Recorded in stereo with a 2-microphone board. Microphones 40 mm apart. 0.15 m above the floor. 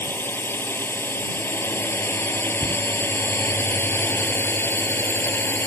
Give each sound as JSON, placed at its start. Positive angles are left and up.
{"t": 0.0, "sound": "a drone", "side_deg": 65}
{"t": 2.6, "sound": "a cupboard door", "side_deg": -5}